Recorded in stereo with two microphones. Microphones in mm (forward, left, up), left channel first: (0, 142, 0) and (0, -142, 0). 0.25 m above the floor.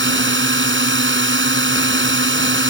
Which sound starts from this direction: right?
A drone, at 0.0 s.